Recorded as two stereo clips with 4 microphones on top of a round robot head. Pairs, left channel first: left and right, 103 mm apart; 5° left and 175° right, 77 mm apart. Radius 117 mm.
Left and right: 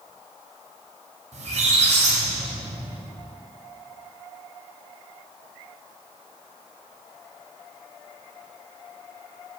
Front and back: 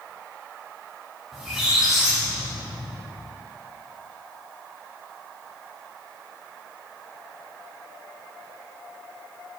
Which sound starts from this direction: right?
A squeak, at 1.3 s.